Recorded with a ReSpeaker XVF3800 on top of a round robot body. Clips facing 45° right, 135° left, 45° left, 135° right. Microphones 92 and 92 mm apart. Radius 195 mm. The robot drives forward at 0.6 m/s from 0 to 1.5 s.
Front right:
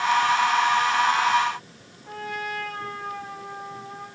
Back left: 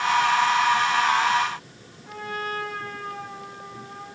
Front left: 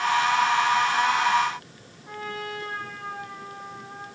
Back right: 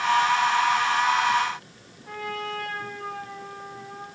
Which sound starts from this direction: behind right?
A trumpet, at 2.0 s.